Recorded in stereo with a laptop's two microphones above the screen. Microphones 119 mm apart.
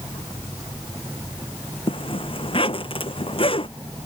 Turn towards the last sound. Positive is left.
turn(degrees=50)  # may be behind; listen again after turning